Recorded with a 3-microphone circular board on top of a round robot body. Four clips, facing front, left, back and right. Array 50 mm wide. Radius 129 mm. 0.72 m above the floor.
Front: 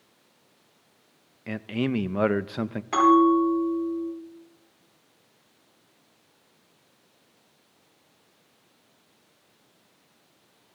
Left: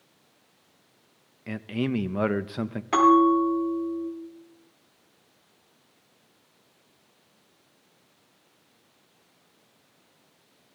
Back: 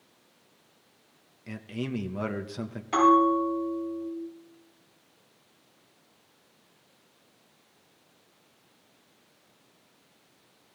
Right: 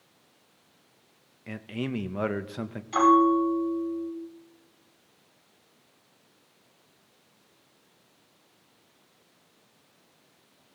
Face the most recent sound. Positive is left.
turn(degrees=70)